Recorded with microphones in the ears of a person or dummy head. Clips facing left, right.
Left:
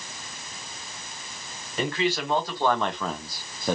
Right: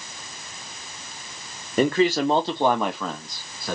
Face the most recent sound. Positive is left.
turn(degrees=25)  # may be behind; listen again after turning